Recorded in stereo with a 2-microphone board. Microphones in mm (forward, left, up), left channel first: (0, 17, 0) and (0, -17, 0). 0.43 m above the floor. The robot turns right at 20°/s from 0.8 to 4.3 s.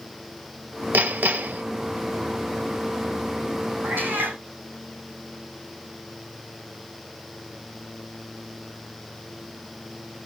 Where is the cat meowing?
80° right, 3.5 m; by 4.4 s 70° right (ahead or behind), 3.5 m.